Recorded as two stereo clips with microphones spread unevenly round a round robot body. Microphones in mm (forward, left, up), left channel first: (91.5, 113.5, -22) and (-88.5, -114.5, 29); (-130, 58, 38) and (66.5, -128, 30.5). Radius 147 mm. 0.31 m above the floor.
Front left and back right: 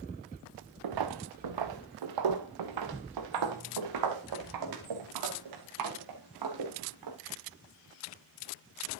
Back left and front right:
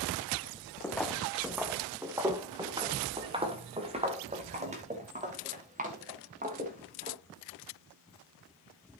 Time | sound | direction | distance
0.8 | footsteps | 140° right | 1.3 m